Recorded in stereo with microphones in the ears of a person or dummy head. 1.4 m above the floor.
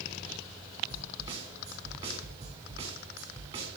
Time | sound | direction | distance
0.9 | a snare drum | 30° right (ahead or behind) | 2 m